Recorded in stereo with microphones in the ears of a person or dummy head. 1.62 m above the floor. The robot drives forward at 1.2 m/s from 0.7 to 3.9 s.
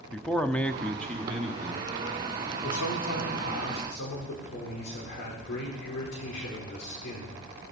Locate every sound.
0.1 s a man speaking: 10° left (ahead or behind), 0.6 m; by 2.5 s centre (ahead or behind), 3 m
2.6 s a man speaking: 80° left, 3.5 m; by 7.4 s 60° left (ahead or behind), 4 m